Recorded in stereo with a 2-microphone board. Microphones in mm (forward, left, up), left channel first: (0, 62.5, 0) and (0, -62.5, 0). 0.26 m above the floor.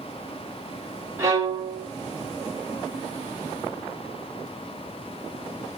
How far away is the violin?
About 1.3 m.